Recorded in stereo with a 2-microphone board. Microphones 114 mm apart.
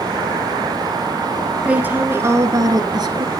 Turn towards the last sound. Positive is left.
turn(degrees=-40)  # may be behind; listen again after turning